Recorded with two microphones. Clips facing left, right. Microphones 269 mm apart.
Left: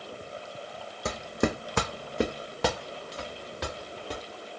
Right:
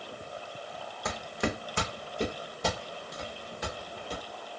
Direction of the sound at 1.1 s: 35° left (ahead or behind).